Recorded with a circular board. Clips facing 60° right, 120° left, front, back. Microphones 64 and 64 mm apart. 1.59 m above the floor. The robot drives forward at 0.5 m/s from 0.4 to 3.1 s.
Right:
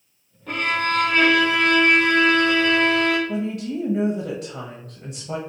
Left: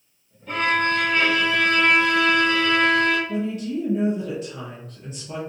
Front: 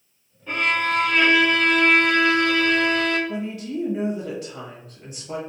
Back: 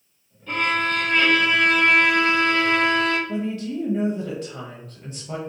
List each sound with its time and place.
0.5 s a violin: 70° right, 1.4 m; by 3.2 s 125° right, 1.6 m
3.3 s a woman speaking: 105° right, 1.0 m